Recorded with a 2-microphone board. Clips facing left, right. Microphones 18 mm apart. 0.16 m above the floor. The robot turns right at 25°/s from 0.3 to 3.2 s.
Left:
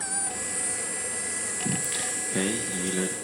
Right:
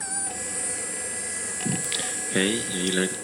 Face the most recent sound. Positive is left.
turn(degrees=-110)